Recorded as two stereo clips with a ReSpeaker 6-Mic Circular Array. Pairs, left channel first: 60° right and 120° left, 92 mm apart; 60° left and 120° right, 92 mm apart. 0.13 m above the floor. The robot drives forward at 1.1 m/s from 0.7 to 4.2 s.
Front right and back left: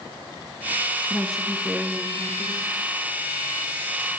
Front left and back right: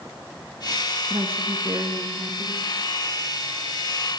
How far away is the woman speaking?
About 1.0 m.